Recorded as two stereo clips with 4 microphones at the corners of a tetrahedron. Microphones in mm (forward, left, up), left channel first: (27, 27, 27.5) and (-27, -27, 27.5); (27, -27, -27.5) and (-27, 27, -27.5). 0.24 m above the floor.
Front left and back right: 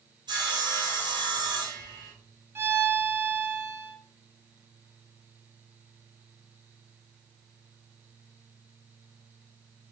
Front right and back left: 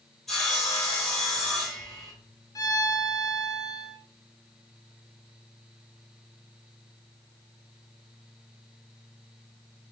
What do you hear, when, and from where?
0.3 s sawing: 130° right, 1.9 m
2.5 s a violin: 80° right, 0.6 m